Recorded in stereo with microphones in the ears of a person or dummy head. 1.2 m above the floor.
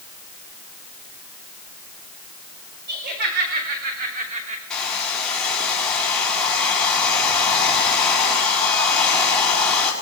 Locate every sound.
2.9 s laughter: 50° right (ahead or behind), 4 m; by 4.6 s 35° right (ahead or behind), 2.5 m
4.7 s a hair dryer: 5° left (ahead or behind), 3.5 m